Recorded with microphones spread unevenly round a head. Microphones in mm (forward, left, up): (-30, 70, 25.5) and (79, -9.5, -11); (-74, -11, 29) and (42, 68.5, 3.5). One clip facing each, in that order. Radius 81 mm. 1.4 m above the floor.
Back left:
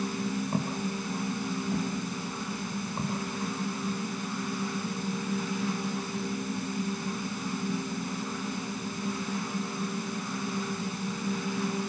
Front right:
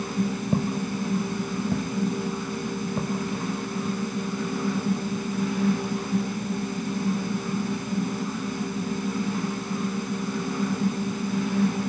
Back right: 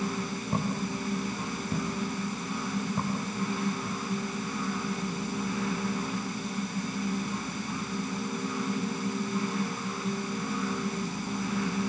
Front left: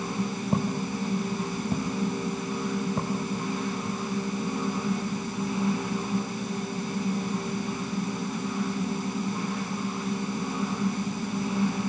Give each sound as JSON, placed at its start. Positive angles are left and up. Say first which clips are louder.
{"t": 0.5, "sound": "footsteps", "louder": "front right 5 dB, front left 3 dB", "azimuth_deg": -35, "distance_m": 4.5}